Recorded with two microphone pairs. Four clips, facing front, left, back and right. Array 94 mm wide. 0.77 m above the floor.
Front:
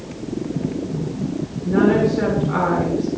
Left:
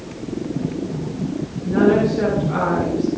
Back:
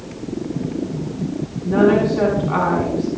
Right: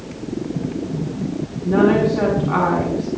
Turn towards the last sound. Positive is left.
turn(degrees=-125)